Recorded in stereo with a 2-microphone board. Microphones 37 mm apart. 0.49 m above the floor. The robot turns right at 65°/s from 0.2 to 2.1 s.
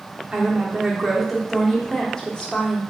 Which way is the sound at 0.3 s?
25° right (ahead or behind).